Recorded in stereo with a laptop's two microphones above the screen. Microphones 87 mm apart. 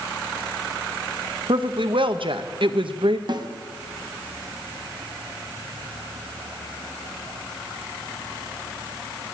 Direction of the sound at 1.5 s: 70° right (ahead or behind).